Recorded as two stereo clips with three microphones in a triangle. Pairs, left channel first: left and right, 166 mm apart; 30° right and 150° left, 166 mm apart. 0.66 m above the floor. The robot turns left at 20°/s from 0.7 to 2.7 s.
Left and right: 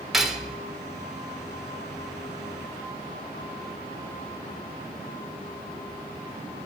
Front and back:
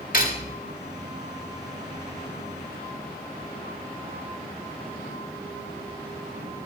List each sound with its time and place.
0.1 s cutlery clinking: straight ahead, 1.3 m